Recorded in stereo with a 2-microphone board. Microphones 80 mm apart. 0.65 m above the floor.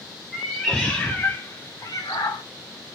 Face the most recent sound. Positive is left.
turn(degrees=65)  # may be behind; listen again after turning